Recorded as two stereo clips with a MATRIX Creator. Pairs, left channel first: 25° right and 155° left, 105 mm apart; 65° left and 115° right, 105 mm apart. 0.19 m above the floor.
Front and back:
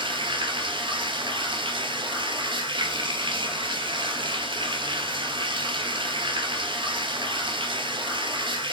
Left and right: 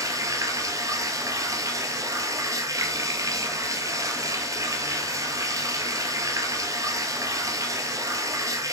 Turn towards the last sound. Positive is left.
turn(degrees=-170)